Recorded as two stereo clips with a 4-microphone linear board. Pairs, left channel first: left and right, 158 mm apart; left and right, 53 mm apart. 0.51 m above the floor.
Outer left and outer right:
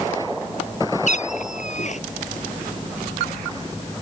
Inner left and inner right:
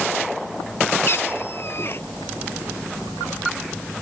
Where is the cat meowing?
50° left (ahead or behind).